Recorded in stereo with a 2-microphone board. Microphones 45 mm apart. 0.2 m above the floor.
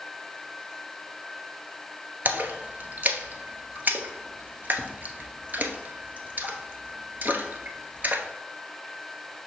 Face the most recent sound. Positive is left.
turn(degrees=-45)  # may be behind; listen again after turning